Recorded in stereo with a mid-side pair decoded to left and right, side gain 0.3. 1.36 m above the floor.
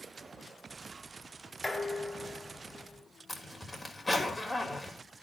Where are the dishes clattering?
10° left, 3 m.